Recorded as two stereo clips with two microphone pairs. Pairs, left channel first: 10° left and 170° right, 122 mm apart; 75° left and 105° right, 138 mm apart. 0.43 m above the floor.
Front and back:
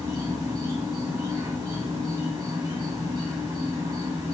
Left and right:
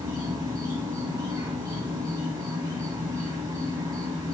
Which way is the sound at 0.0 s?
140° right.